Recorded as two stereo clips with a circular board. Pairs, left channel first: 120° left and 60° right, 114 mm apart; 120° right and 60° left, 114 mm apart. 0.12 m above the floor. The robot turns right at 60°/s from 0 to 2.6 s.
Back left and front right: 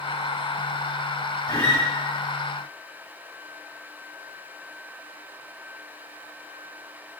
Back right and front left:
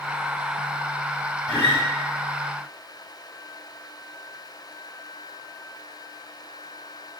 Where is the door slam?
No door slam in this recording.